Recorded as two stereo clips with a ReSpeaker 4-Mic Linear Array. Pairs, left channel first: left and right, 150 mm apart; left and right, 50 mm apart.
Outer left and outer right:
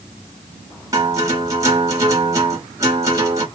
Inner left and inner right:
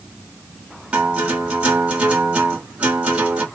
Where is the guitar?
20° right (ahead or behind), 1.7 m.